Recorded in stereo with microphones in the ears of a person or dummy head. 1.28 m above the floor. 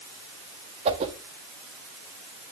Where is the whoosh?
30° right (ahead or behind), 1.1 m.